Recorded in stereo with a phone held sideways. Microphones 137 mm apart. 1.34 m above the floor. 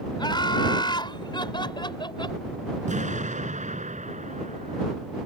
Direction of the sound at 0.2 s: 35° left (ahead or behind).